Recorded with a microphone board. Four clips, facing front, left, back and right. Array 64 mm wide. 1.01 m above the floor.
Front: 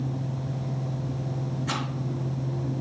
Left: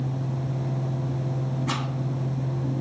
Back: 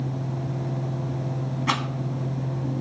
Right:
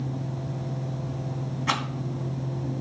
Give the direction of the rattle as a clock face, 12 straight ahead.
5 o'clock.